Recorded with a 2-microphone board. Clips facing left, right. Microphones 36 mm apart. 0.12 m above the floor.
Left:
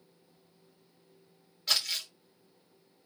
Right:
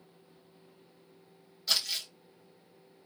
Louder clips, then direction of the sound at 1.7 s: Left 1 dB; 55° left (ahead or behind).